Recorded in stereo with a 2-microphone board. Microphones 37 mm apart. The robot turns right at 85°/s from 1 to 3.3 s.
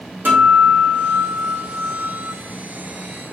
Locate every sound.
0.2 s a guitar: 120° right, 0.9 m; by 2.3 s 10° right, 0.9 m